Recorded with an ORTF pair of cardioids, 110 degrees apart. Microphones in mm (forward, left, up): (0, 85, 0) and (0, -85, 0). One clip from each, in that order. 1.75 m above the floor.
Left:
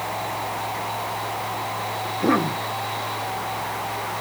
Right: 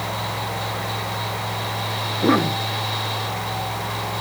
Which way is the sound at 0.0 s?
50° right.